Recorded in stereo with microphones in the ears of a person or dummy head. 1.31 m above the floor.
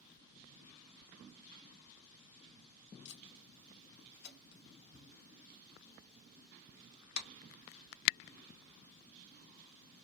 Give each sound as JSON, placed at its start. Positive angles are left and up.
{"t": 3.0, "sound": "tape being pulled", "side_deg": 65, "distance_m": 1.1}